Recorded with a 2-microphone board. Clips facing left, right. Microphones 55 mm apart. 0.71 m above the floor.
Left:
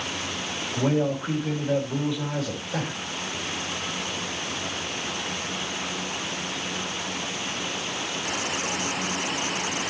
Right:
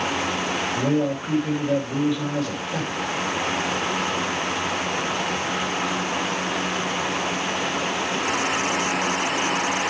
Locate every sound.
0.8 s a man speaking: centre (ahead or behind), 3.5 m